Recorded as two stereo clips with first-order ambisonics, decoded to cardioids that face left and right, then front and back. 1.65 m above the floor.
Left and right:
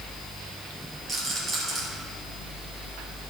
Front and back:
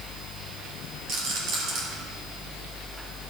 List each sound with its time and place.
1.1 s a rattle: 155° right, 2.5 m